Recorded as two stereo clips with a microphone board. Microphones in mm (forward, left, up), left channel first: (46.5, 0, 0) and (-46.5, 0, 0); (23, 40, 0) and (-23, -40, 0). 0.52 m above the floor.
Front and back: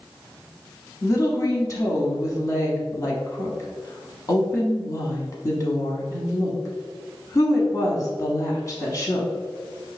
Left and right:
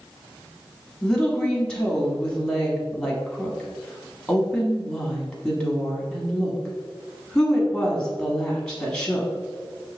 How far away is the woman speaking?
About 1.1 m.